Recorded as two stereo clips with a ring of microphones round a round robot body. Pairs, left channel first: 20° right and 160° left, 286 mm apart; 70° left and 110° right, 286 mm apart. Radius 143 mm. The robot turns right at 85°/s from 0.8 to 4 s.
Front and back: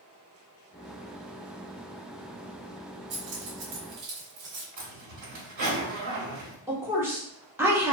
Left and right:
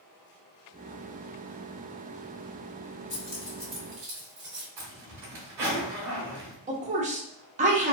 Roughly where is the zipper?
Behind.